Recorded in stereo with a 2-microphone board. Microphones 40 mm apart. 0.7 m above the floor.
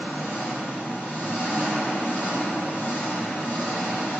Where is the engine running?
45° left (ahead or behind), 2.5 m.